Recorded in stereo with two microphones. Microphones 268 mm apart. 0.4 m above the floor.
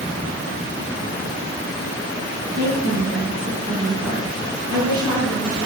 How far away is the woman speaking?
About 7.5 m.